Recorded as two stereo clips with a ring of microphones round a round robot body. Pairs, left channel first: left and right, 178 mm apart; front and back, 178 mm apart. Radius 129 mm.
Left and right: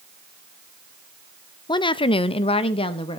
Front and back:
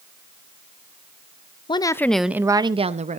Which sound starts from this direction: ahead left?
A woman speaking, at 1.7 s.